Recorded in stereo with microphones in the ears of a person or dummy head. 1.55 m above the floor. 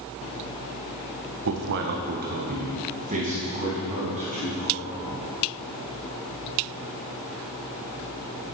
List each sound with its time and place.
1.4 s a man speaking: 65° right (ahead or behind), 0.9 m; by 5.2 s 30° right (ahead or behind), 4.5 m